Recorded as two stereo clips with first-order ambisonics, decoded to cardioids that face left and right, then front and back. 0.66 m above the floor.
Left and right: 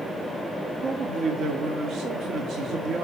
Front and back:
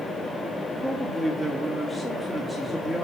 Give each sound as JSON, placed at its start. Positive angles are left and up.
{"t": 0.8, "sound": "a man speaking", "azimuth_deg": -90, "distance_m": 0.6}